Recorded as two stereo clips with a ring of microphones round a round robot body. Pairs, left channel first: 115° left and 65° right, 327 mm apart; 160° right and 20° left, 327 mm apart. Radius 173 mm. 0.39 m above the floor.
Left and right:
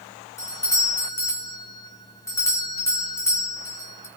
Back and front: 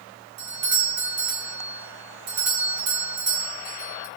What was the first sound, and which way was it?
A doorbell, 30° left.